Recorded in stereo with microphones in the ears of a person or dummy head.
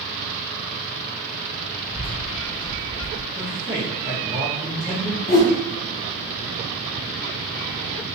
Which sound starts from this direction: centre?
A man speaking, at 3.4 s.